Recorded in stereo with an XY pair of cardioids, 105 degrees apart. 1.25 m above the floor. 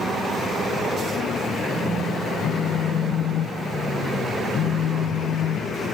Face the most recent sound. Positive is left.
turn(degrees=65)